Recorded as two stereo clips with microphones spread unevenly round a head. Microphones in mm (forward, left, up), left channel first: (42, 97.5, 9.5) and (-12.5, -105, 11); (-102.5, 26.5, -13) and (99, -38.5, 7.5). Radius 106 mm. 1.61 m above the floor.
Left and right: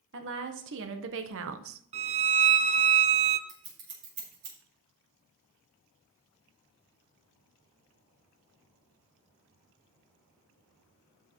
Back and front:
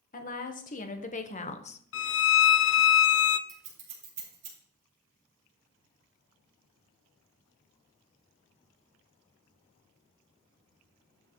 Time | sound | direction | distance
0.1 | a woman speaking | 145° right | 1.7 m
1.9 | a violin | 165° right | 0.5 m
3.5 | scissors | 75° right | 4.5 m